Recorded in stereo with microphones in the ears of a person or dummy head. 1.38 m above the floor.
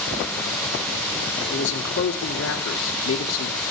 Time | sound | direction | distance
1.5 | a man speaking | 65° left (ahead or behind) | 3 m